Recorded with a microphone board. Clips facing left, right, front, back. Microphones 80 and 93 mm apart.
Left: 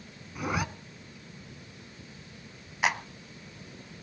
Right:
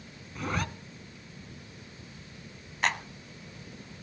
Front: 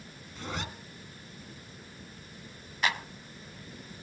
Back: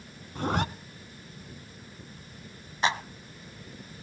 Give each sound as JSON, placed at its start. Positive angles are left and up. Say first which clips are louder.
{"t": 0.3, "sound": "a zipper", "louder": "left 1 dB, back 10 dB", "azimuth_deg": 165, "distance_m": 0.7}
{"t": 2.8, "sound": "a clap", "louder": "left 1 dB, back 4 dB", "azimuth_deg": 160, "distance_m": 0.9}